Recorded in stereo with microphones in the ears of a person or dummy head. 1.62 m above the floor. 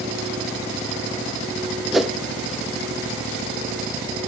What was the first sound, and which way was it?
A whoosh, centre (ahead or behind).